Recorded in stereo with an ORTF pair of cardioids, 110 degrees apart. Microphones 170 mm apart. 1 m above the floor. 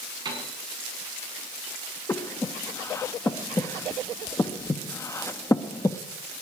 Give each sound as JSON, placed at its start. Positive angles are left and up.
{"t": 0.2, "sound": "a piano", "azimuth_deg": -25, "distance_m": 6.5}
{"t": 2.1, "sound": "breathing", "azimuth_deg": 15, "distance_m": 1.1}